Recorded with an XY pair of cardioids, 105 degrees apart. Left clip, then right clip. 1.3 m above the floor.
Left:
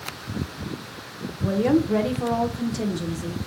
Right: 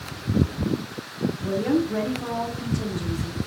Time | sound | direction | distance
1.4 | a woman speaking | 60° left | 0.9 m